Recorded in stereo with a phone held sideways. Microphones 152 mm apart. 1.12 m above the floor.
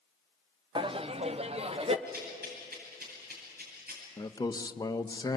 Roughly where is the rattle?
Right.